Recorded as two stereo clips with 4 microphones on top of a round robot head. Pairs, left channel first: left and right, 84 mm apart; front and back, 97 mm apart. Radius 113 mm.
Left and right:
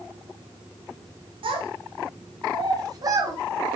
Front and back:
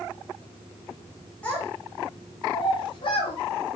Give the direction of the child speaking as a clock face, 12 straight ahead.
3 o'clock.